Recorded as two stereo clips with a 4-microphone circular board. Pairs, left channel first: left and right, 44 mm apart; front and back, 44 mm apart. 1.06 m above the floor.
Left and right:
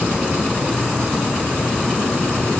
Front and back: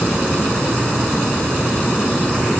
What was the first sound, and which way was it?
Only background noise.